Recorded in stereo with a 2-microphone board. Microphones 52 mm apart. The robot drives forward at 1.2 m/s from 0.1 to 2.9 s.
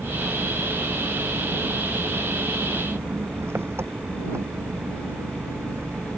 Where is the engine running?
60° right (ahead or behind); by 6.2 s 55° right (ahead or behind).